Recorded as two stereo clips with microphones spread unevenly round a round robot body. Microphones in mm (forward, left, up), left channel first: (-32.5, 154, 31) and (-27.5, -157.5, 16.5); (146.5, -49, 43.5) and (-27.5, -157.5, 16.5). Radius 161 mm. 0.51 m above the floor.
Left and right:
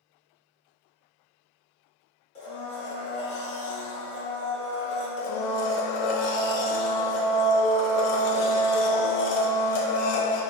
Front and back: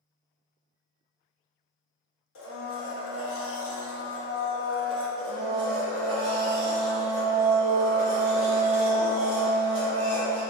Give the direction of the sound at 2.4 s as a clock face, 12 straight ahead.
11 o'clock.